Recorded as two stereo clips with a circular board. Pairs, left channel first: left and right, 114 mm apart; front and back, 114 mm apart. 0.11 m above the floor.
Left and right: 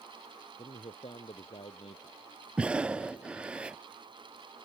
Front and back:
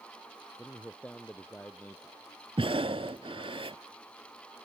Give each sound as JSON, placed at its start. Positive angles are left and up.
{"t": 0.6, "sound": "a man speaking", "azimuth_deg": 75}
{"t": 2.6, "sound": "breathing", "azimuth_deg": -170}